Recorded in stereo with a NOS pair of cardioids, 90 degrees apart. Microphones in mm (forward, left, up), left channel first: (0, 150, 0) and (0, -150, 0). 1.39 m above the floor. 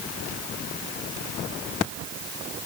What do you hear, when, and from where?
Only background noise.